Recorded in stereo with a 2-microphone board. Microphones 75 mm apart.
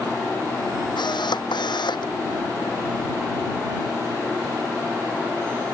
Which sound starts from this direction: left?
A camera shutter, at 1.0 s.